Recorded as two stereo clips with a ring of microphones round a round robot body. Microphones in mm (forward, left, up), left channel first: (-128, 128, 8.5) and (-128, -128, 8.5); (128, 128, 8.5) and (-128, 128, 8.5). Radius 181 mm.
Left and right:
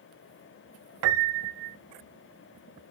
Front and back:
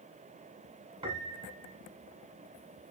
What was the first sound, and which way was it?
A piano, 105° right.